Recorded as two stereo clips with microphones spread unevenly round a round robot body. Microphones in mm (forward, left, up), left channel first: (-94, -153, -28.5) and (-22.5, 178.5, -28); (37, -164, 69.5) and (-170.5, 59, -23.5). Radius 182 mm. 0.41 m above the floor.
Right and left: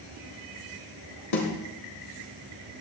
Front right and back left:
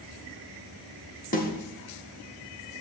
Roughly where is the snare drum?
Behind right.